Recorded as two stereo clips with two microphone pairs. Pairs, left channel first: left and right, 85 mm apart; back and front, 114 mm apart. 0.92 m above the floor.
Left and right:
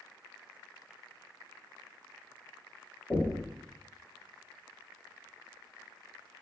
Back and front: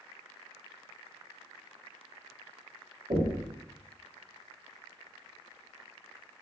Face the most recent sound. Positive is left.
turn(degrees=25)